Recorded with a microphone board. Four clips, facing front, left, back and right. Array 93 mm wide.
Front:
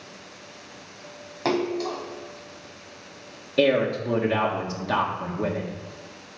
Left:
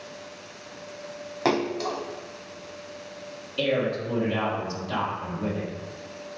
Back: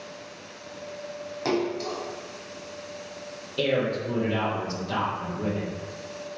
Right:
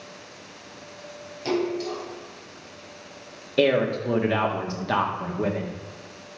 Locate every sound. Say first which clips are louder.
1.4 s a splash: left 1 dB, front 2 dB; 70° left, 1.0 m
3.6 s a man speaking: right 5 dB, front 4 dB; 55° right, 1.5 m